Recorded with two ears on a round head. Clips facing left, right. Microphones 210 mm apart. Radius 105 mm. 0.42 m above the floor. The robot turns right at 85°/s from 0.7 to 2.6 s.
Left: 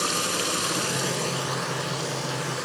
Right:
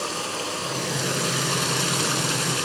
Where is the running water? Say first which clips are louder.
Left 1 dB; 150° left, 3 m; by 2.7 s 45° right, 3 m.